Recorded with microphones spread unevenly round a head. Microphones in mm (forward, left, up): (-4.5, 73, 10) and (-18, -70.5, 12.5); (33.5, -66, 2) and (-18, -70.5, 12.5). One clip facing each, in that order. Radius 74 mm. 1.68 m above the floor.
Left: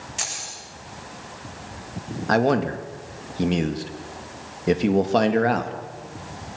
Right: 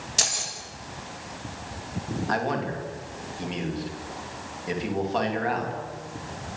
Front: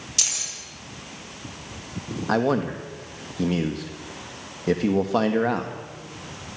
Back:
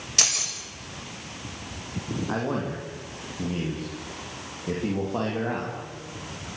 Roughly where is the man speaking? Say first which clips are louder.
Left 9 dB, front 8 dB; ahead left.